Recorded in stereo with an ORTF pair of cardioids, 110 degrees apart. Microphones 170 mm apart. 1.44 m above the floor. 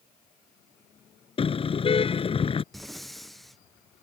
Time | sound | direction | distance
1.4 | a car horn | 35° left | ?
2.7 | breathing | straight ahead | ?